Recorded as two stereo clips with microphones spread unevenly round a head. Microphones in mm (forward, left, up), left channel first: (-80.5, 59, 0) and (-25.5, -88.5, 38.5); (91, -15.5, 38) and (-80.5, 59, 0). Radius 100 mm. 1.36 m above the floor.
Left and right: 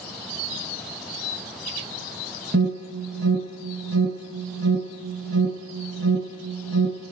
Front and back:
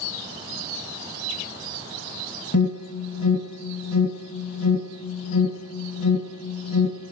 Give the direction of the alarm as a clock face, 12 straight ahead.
2 o'clock.